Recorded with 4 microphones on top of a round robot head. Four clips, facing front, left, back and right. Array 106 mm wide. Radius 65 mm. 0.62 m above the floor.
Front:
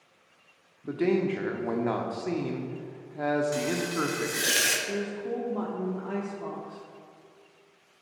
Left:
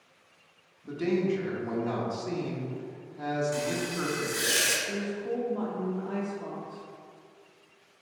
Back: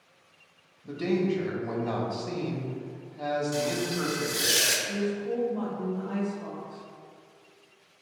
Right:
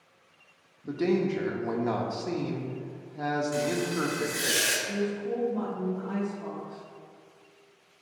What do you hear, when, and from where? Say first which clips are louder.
0.8 s a man speaking: right 1 dB, front 1 dB; 25° right, 1.0 m
3.5 s frying: right 3 dB, even; 5° left, 1.3 m
4.9 s a woman speaking: right 2 dB, back 2 dB; 5° left, 1.3 m